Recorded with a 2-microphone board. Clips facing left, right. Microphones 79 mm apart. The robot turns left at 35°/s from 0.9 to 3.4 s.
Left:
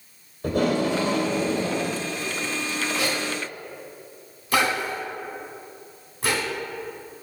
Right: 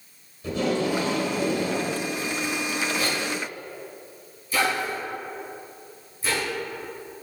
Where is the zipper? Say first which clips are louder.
Even; 85° left, 2.5 m; by 6.4 s 70° left (ahead or behind), 2.5 m.